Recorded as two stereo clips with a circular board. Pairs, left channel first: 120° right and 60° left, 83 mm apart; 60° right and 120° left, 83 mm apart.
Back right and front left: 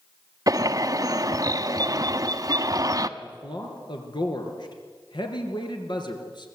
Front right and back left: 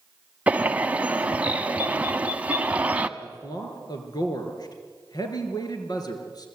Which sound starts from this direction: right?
A man speaking, at 3.2 s.